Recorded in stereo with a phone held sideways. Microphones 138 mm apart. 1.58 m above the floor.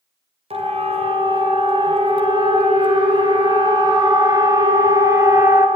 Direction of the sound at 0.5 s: 45° right (ahead or behind).